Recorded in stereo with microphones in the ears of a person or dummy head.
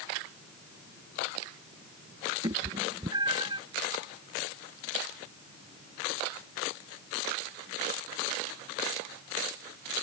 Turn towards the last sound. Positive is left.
turn(degrees=-20)  # may be behind; listen again after turning